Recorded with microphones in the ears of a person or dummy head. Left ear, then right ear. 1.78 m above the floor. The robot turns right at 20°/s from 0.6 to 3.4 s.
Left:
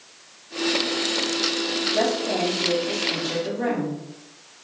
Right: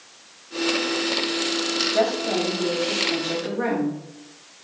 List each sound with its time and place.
1.9 s a woman speaking: 20° right (ahead or behind), 1.2 m; by 4.0 s 45° right (ahead or behind), 1.2 m